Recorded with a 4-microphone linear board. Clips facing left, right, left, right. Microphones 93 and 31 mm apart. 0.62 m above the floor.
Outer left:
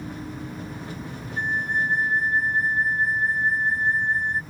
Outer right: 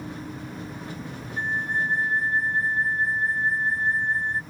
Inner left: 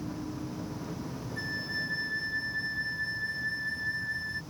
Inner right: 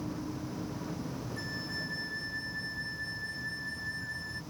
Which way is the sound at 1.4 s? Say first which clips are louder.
Outer left 1 dB, inner left 7 dB; 20° left (ahead or behind).